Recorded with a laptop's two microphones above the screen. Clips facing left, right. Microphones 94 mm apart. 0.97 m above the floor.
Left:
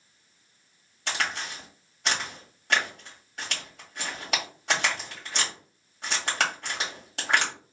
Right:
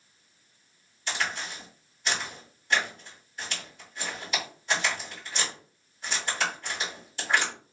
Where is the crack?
65° left (ahead or behind), 1.9 m.